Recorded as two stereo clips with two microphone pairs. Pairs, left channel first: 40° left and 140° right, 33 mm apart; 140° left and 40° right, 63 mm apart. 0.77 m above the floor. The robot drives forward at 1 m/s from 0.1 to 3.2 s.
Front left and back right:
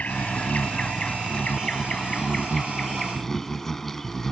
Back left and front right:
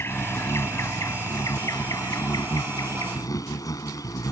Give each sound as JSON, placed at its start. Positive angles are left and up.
{"t": 0.0, "sound": "an insect", "azimuth_deg": 90}